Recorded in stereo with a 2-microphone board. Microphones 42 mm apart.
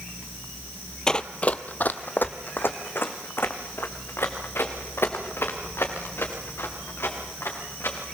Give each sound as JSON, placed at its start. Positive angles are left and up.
{"t": 1.1, "sound": "running footsteps", "side_deg": 15, "distance_m": 0.7}